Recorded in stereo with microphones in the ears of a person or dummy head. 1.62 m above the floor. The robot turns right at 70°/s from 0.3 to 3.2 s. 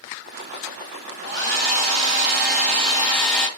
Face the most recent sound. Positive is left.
turn(degrees=0)